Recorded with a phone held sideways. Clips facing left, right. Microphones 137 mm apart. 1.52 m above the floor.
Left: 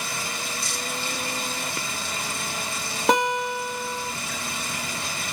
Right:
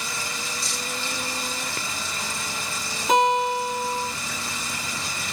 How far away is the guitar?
About 3 m.